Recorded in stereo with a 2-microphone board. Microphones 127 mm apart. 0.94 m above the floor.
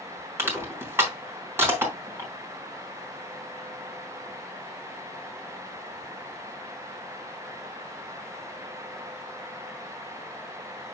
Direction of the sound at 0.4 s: 20° right (ahead or behind).